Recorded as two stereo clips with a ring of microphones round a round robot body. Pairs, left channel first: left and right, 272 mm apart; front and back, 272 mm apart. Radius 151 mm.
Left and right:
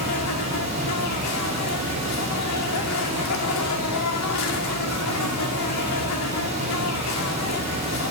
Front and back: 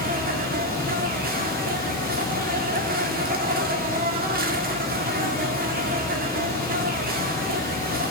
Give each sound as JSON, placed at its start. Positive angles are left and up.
{"t": 0.0, "sound": "an insect", "azimuth_deg": 125, "distance_m": 2.0}